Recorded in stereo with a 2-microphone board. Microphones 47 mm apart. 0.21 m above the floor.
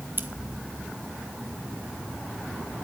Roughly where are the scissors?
Right.